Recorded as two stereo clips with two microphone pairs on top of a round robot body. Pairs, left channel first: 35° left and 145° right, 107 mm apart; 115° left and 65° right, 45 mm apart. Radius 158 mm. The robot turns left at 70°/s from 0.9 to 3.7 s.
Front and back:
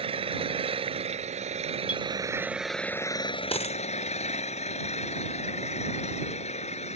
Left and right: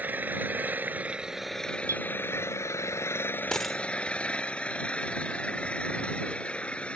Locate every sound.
0.0 s an engine running: 115° right; by 7.0 s 50° left
1.9 s a clink: 65° right; by 2.0 s 80° right
3.5 s a dropped coin: 35° left; by 3.8 s 20° left